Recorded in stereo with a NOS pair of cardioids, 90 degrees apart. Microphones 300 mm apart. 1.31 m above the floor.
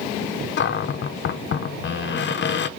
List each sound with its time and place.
0.6 s a cupboard door: 40° left, 0.6 m